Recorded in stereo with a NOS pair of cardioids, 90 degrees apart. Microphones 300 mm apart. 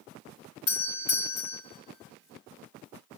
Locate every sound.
0.7 s a doorbell: 60° left, 2 m